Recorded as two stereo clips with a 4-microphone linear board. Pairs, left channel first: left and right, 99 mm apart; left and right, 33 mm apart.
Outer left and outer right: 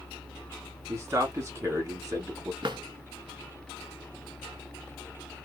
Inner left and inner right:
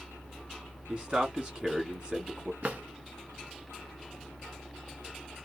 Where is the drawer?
55° right (ahead or behind), 1.2 m.